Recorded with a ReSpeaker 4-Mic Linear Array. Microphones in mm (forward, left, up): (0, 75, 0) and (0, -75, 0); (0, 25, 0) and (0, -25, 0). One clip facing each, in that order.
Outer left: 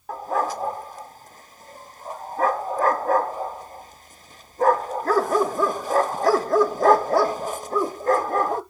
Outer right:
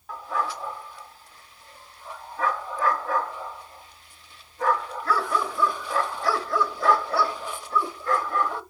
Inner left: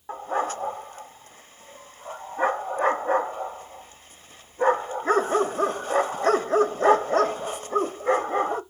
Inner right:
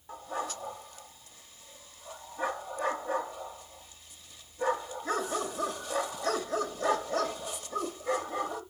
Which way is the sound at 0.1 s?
40° left (ahead or behind).